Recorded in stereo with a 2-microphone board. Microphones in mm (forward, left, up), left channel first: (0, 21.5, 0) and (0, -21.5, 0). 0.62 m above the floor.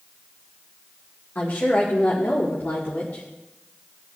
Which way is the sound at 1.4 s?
45° left (ahead or behind).